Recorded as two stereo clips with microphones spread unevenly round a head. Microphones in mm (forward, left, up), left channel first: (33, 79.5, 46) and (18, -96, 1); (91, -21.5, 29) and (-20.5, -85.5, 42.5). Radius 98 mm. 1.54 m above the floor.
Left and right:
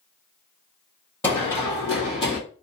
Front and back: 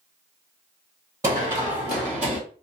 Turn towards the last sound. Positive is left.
turn(degrees=130)